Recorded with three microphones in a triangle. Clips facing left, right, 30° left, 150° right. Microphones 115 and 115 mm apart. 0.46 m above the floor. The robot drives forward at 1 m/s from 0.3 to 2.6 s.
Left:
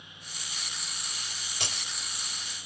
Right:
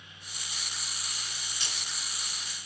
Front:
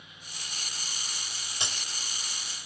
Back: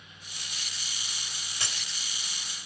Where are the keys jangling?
95° left, 1.5 m; by 2.0 s 110° left, 1.6 m.